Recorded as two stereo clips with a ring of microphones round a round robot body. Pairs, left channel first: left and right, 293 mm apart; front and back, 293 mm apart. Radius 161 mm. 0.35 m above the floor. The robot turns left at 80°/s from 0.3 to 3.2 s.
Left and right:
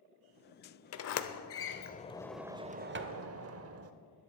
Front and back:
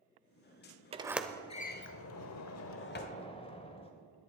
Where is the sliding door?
115° left, 0.9 m; by 3.9 s 70° right, 0.9 m.